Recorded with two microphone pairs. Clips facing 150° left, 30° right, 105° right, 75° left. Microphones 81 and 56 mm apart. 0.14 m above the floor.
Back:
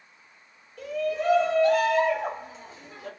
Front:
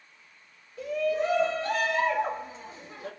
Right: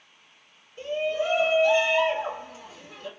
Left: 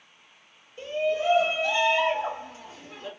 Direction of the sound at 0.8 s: 95° right.